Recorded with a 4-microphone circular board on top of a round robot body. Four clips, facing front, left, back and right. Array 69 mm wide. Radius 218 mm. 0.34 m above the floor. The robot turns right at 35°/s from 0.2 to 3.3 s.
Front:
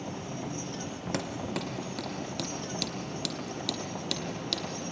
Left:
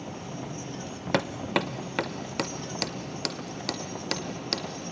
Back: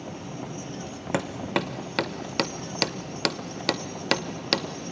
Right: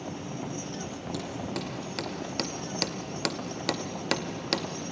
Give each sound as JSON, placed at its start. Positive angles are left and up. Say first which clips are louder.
{"t": 1.1, "sound": "hammering", "louder": "left 10 dB, back 8 dB", "azimuth_deg": 115, "distance_m": 0.9}